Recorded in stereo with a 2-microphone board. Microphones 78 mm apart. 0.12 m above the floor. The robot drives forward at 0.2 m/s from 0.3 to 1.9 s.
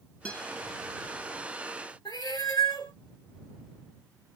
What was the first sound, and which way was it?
A guitar, 15° left (ahead or behind).